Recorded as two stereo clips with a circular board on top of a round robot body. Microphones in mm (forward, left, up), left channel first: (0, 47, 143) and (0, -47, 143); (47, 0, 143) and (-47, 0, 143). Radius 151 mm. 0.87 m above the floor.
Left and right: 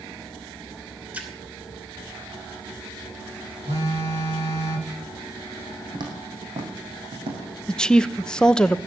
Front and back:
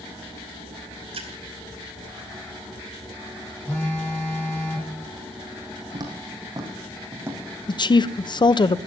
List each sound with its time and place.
1.1 s a splash: 165° right, 2.5 m
3.6 s a phone buzzing: 70° right, 8.5 m
5.9 s footsteps: 135° right, 3 m; by 7.5 s 110° right, 4 m
7.7 s a woman speaking: 10° left, 0.8 m